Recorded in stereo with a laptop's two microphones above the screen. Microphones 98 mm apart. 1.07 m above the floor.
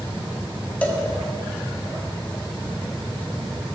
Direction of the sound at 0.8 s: 15° left (ahead or behind).